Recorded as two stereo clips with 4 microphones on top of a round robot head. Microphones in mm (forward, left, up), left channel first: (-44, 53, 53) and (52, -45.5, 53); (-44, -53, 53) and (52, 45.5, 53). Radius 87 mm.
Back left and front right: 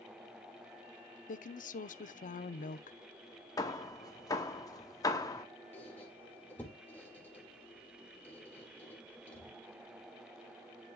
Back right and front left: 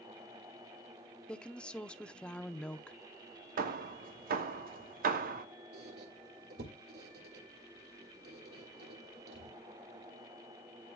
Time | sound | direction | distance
1.3 | a woman speaking | 145° left | 0.7 m
3.6 | hammering | 70° left | 1.0 m
5.7 | a squeak | 55° left | 1.7 m